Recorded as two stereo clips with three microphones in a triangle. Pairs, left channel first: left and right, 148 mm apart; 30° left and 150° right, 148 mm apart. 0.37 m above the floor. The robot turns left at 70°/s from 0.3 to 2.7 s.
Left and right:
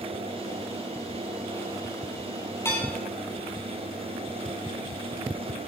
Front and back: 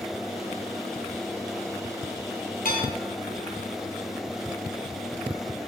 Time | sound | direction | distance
2.6 | dishes clattering | 20° left | 7.5 m